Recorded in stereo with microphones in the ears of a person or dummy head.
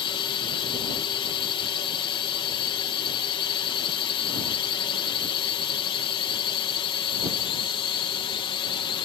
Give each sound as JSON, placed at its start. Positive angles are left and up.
{"t": 0.0, "sound": "a drone", "side_deg": 25}